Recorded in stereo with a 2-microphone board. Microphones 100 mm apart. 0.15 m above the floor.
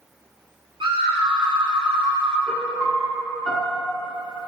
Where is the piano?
5° left (ahead or behind), 1.1 m.